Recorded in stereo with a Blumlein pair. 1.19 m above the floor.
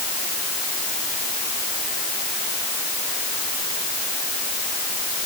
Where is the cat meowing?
I don't hear a cat meowing.